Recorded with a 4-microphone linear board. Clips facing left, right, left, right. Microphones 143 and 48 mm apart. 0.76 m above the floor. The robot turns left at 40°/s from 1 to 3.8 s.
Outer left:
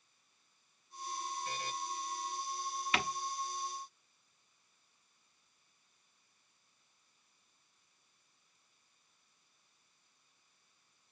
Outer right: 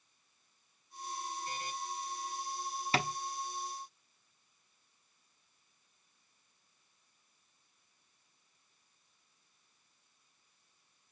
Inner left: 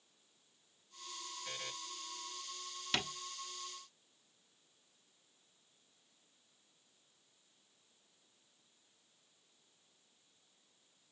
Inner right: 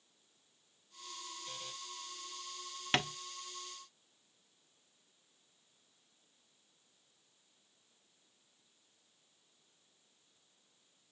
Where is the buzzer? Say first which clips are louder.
Even, inner left 4 dB; 85° left, 3.5 m; by 1.7 s 75° left (ahead or behind), 3.5 m.